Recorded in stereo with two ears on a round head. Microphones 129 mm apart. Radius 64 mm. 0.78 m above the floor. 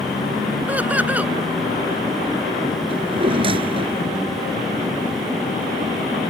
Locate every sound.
0.7 s laughter: 10° right (ahead or behind)
2.9 s a drawer: 40° right (ahead or behind)